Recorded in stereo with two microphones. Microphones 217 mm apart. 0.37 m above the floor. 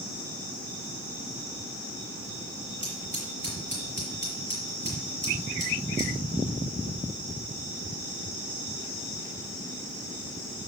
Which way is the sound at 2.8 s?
55° right (ahead or behind).